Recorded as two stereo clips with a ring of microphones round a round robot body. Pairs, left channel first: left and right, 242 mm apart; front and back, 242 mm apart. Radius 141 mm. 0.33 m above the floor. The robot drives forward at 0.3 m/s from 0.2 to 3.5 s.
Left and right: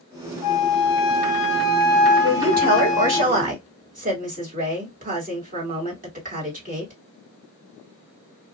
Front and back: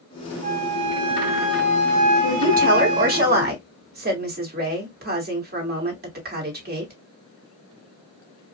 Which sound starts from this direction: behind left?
A flute, at 0.4 s.